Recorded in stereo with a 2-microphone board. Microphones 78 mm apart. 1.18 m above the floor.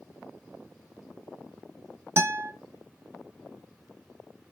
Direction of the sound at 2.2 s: 30° right (ahead or behind).